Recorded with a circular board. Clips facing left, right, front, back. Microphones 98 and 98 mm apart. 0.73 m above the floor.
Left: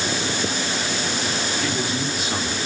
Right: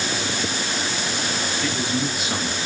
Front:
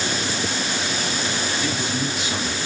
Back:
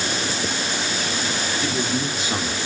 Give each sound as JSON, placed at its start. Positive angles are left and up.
{"t": 1.6, "sound": "a man speaking", "azimuth_deg": 180, "distance_m": 0.7}